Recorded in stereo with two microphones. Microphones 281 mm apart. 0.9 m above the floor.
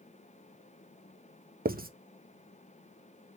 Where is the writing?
30° right (ahead or behind), 0.8 m.